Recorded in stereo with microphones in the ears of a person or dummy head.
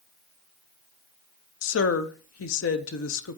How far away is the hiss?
No hiss in this recording.